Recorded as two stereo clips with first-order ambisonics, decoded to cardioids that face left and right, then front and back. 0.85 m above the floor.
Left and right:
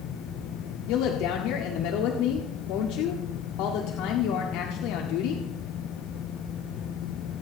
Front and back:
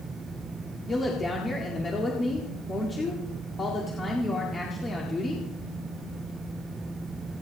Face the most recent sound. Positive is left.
turn(degrees=75)